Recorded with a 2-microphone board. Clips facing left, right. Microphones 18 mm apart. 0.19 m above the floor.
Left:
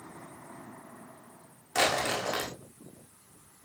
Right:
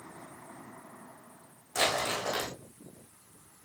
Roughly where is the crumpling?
Left.